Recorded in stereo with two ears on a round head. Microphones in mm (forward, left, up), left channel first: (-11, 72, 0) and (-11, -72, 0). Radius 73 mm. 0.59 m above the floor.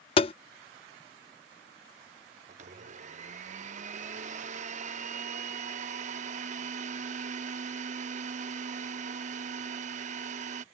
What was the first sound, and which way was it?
Tapping, 35° left (ahead or behind).